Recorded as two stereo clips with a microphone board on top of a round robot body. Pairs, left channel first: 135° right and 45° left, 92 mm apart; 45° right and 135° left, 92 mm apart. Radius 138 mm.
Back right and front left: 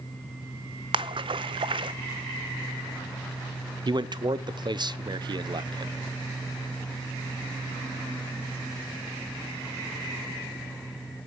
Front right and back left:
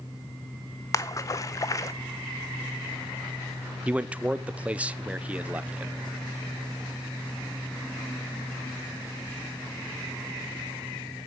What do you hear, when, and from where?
0.9 s a splash: 10° left, 0.6 m
3.9 s a man speaking: 65° left, 0.9 m